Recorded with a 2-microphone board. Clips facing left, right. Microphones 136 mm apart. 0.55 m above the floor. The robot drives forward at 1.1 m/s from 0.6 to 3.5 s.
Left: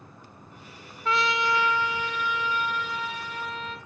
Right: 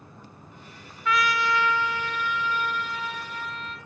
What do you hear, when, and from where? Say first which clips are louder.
1.1 s a trumpet: right 1 dB; 30° left (ahead or behind), 0.6 m; by 3.8 s 5° left (ahead or behind), 3 m